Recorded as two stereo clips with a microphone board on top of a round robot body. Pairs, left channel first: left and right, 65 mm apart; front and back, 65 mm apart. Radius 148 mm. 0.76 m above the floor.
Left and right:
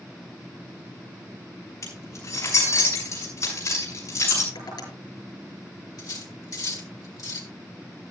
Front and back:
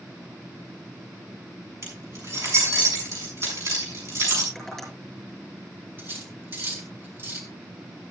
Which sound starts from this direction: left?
Tapping, at 4.5 s.